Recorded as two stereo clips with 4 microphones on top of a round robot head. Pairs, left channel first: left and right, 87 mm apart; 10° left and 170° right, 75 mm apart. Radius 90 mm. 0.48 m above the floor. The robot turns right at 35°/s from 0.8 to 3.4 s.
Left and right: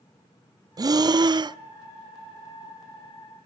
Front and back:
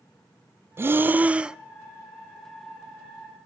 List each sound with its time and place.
0.8 s breathing: 120° right, 0.6 m; by 1.6 s 90° right, 0.6 m